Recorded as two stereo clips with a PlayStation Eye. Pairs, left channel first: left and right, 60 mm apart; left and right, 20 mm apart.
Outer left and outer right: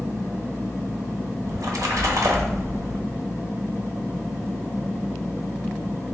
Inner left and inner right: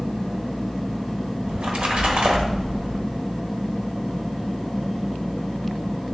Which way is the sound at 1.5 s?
90° right.